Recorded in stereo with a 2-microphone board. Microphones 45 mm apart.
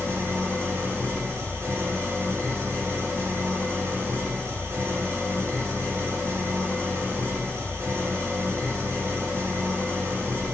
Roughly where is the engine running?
Right.